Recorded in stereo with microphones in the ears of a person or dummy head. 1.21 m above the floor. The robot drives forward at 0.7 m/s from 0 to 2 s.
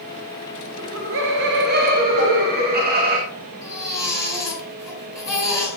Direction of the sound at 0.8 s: 65° right (ahead or behind).